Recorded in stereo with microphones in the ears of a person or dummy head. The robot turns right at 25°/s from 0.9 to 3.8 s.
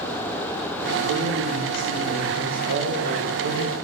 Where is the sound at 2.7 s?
60° right (ahead or behind), 1.4 m; by 3.8 s 45° right (ahead or behind), 1.4 m.